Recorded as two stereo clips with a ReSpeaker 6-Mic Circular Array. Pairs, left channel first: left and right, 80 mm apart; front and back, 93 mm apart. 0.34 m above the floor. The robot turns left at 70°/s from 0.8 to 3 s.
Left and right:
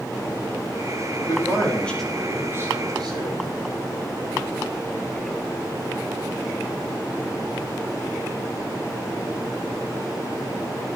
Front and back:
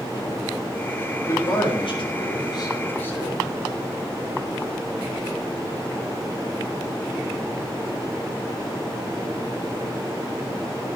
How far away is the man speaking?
About 6.5 m.